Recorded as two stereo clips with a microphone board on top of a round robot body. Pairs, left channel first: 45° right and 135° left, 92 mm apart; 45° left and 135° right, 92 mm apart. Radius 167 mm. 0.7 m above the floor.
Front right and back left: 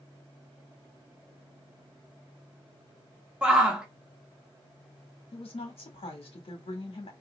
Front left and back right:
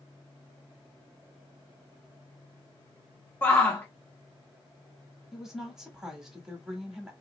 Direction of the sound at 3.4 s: 70° left.